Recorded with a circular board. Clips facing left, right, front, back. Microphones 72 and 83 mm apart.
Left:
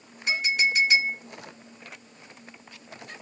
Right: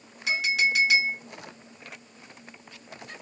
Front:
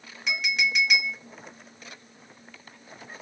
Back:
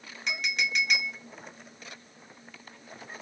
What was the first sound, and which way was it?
A clink, 90° right.